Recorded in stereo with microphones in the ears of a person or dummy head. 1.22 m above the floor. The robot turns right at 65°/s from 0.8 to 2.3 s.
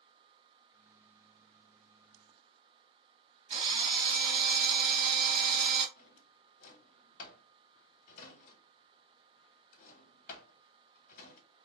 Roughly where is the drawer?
Left.